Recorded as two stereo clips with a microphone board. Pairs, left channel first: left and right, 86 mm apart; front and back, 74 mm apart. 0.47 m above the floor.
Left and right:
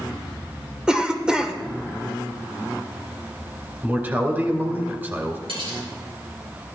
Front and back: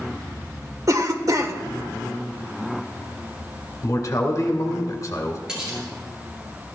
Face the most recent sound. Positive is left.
turn(degrees=-100)